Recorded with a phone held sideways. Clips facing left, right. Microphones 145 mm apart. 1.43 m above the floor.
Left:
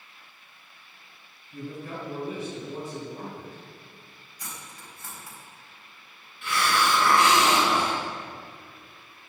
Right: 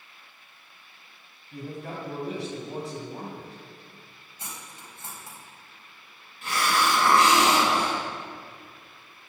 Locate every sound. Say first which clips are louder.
1.5 s a man speaking: even; 90° right, 7.5 m
4.4 s cutlery clinking: even; 25° right (ahead or behind), 4.5 m
6.4 s a hiss: even; 45° right (ahead or behind), 5.5 m